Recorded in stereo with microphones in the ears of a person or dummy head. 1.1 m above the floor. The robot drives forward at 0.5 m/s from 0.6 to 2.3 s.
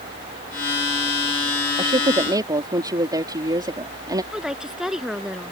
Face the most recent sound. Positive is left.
turn(degrees=0)  # may be behind; listen again after turning